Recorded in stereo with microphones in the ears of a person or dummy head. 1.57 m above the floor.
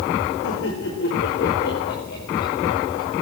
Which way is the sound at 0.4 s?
80° left.